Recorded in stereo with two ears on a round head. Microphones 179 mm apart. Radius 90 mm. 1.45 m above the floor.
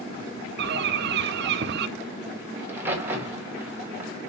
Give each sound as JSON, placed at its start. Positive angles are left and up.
{"t": 0.6, "sound": "a bird", "side_deg": -55, "distance_m": 0.6}
{"t": 2.6, "sound": "a crack", "side_deg": -10, "distance_m": 2.5}